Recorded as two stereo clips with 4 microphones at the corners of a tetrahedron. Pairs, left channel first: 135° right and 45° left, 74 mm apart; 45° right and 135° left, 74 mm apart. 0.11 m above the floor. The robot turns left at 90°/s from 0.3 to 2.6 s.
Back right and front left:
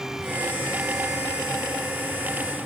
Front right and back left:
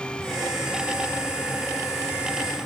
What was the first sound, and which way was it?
Only background noise.